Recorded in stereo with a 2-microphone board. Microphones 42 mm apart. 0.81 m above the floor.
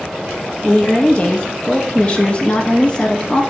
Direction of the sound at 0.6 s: 25° left (ahead or behind).